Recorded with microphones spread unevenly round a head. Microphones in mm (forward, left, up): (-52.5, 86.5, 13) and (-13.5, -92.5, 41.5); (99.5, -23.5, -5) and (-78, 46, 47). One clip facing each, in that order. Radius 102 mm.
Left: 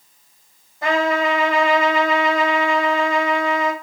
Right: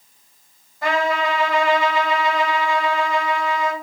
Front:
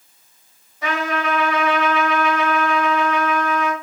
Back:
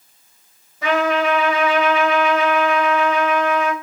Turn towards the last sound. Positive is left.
turn(degrees=175)